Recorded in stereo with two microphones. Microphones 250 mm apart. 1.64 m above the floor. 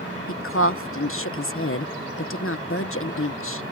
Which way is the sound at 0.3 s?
60° left (ahead or behind).